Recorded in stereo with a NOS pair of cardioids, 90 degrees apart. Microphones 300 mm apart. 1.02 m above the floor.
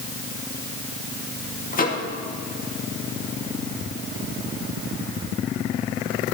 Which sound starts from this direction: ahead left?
A microwave, at 1.7 s.